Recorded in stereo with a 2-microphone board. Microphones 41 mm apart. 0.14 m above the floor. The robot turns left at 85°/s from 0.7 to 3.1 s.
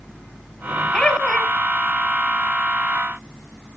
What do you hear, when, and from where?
0.9 s laughter: 20° left (ahead or behind), 1.1 m; by 1.5 s 10° left (ahead or behind), 1.1 m